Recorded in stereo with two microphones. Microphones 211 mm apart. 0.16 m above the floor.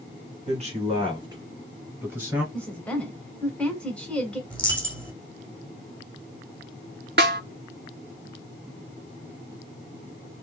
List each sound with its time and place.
0.5 s a man speaking: 35° right (ahead or behind), 1.8 m; by 2.4 s 5° right (ahead or behind), 2.5 m
2.5 s a woman speaking: 5° left (ahead or behind), 1.6 m
4.5 s a dropped coin: 5° left (ahead or behind), 1.2 m
7.2 s a snare drum: 50° right (ahead or behind), 0.7 m